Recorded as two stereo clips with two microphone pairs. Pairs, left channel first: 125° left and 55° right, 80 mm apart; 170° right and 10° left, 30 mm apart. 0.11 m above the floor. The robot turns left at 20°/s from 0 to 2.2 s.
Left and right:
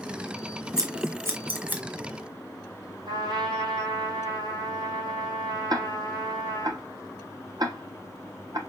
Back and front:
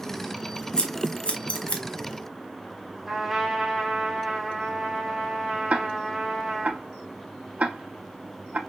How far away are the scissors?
About 1.4 m.